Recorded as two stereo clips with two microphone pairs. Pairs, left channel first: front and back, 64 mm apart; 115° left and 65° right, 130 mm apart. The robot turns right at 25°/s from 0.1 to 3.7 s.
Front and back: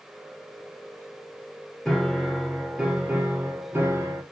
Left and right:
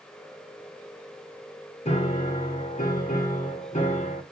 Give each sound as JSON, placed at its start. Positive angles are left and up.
{"t": 1.9, "sound": "a piano", "azimuth_deg": 85, "distance_m": 1.9}